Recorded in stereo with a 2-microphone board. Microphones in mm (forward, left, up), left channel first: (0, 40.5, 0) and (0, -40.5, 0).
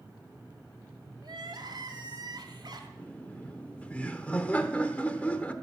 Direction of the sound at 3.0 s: 15° left (ahead or behind).